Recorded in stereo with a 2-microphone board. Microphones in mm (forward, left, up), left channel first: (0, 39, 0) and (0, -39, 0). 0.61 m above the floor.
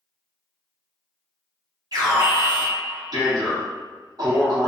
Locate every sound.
1.9 s an alarm: 50° right (ahead or behind), 0.9 m